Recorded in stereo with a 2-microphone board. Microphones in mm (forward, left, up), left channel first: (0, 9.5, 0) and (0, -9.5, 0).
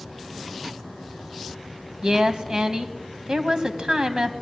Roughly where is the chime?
No chime in this recording.